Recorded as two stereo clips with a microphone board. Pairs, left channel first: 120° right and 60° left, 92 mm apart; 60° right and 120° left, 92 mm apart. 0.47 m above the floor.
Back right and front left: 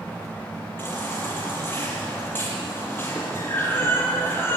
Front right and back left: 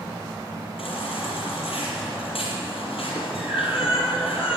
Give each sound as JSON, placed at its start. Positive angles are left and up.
{"t": 0.8, "sound": "a baby crying", "azimuth_deg": -55, "distance_m": 6.5}